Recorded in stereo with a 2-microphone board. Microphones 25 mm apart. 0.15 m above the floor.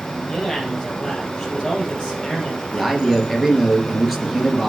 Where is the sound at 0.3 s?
25° left (ahead or behind), 3.5 m.